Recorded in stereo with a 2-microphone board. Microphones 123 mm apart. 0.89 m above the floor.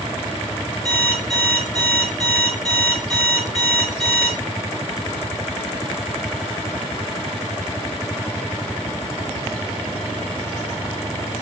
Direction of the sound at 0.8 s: 5° left (ahead or behind).